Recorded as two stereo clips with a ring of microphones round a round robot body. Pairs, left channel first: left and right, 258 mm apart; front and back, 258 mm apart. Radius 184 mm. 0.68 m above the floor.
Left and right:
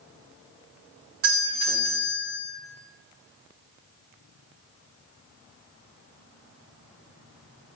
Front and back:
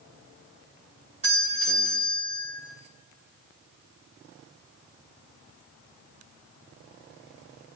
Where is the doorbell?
110° right, 3.5 m.